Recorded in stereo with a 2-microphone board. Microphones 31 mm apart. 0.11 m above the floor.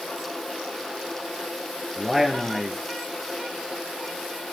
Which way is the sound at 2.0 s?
10° right (ahead or behind).